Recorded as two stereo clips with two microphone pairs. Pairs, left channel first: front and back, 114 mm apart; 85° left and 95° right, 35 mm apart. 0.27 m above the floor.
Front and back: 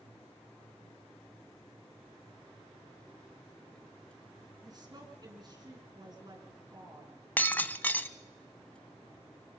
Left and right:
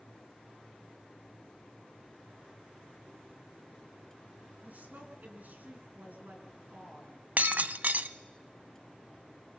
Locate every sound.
4.6 s a woman speaking: 130° right, 3 m
7.4 s breaking glass: 70° right, 0.6 m